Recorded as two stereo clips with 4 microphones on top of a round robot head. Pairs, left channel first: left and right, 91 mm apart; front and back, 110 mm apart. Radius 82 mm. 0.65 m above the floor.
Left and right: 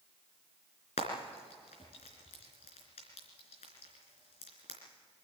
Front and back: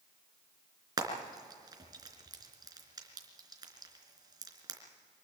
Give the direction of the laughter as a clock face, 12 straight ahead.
I don't hear laughter.